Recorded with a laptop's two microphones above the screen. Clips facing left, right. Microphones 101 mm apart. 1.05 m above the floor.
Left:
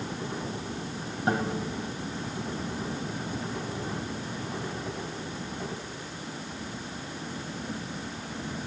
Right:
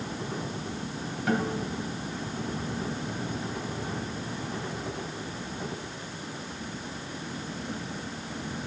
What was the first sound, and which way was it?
A guitar, 30° left (ahead or behind).